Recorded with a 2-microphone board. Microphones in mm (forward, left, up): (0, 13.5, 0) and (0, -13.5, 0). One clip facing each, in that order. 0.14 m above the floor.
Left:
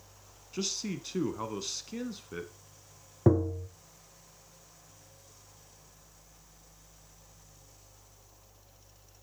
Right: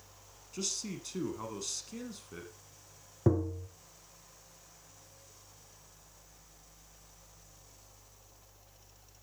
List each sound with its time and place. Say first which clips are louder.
0.5 s a man speaking: left 4 dB; 20° left (ahead or behind), 1.0 m
3.3 s tapping: left 4 dB; 15° left (ahead or behind), 0.7 m